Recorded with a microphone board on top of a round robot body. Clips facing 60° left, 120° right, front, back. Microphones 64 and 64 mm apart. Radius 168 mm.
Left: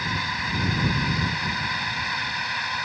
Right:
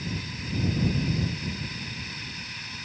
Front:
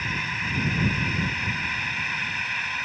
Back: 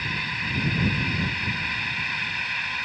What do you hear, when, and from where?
0.0 s a drone: 85° left